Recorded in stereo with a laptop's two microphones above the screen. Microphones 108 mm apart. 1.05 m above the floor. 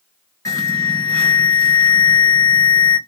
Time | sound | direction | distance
0.5 | an alarm | 30° left (ahead or behind) | 1.5 m